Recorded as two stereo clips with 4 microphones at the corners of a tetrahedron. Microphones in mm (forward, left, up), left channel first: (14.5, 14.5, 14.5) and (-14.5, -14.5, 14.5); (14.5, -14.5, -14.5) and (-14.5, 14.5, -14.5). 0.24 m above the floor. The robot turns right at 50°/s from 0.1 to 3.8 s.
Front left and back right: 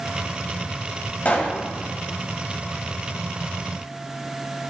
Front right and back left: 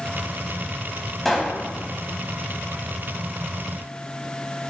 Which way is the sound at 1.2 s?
30° left.